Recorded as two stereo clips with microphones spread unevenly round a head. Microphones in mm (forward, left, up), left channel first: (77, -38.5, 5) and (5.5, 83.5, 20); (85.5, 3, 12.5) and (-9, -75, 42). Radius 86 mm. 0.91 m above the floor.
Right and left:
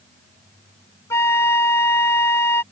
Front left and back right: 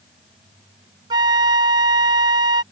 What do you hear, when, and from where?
1.1 s a flute: 135° right